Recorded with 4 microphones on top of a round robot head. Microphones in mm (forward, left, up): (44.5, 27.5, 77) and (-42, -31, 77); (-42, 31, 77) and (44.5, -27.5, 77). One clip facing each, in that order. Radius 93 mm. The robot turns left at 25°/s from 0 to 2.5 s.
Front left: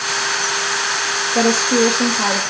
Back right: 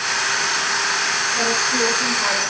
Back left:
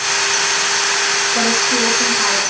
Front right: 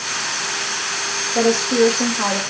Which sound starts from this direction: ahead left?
A woman speaking, at 1.4 s.